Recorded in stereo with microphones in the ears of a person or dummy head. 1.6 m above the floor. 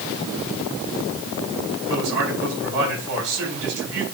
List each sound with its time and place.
1.9 s a man speaking: 70° right (ahead or behind), 7 m